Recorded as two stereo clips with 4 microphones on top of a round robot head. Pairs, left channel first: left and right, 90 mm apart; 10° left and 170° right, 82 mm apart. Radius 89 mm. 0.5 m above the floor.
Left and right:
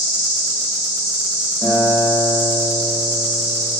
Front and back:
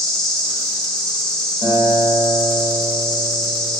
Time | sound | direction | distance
0.0 | an insect | 75° left | 1.6 m
1.6 | a guitar | 170° left | 1.4 m